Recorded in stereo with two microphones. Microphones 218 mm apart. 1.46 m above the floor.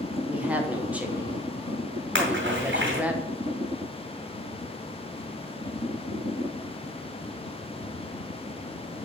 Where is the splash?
60° right (ahead or behind), 2 m.